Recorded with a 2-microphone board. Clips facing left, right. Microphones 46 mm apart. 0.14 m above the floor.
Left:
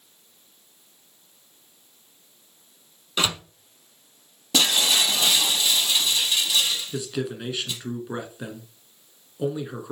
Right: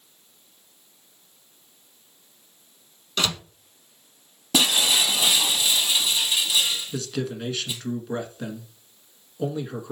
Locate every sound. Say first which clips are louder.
3.2 s a door slam: left 1 dB; 15° left (ahead or behind), 0.8 m
4.5 s breaking glass: even; 5° right (ahead or behind), 1.6 m
6.9 s a man speaking: even; 10° left (ahead or behind), 1.5 m